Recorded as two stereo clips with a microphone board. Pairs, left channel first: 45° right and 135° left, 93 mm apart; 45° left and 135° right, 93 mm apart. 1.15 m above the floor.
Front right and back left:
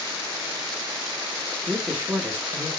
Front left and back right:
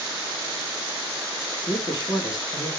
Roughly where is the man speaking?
Left.